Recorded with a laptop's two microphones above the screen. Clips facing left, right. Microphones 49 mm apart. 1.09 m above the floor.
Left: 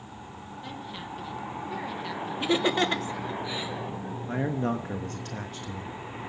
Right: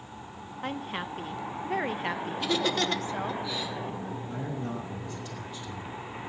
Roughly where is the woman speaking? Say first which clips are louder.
Right 6 dB; right.